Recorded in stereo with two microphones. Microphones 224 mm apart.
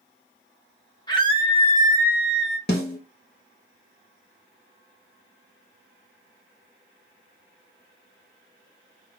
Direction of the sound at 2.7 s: 45° left (ahead or behind).